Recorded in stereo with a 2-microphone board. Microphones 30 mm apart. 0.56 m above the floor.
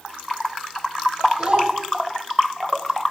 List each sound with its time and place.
1.4 s a child speaking: 40° right (ahead or behind), 2 m